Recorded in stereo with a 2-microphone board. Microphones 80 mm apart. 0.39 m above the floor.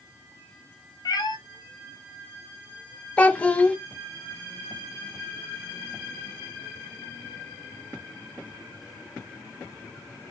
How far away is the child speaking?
About 0.5 m.